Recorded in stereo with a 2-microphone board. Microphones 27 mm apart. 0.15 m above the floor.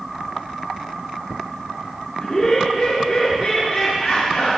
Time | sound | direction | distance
2.2 | laughter | 15° left (ahead or behind) | 2.5 m